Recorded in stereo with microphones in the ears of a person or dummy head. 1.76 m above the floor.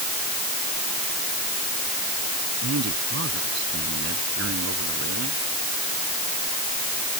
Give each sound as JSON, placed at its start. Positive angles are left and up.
{"t": 2.6, "sound": "a man speaking", "side_deg": -65}